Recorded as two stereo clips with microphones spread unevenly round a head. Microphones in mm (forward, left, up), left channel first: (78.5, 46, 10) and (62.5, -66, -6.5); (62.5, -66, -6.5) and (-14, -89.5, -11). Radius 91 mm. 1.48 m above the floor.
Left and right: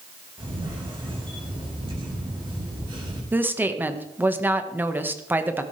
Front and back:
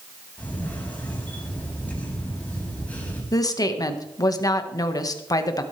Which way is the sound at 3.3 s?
25° right.